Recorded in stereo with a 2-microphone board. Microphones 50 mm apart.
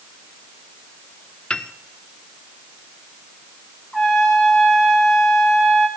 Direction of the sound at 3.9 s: 5° left (ahead or behind).